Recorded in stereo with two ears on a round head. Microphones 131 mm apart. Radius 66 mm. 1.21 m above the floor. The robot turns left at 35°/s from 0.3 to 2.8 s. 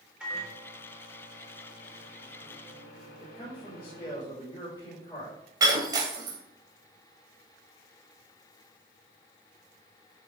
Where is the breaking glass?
25° right (ahead or behind), 1.7 m.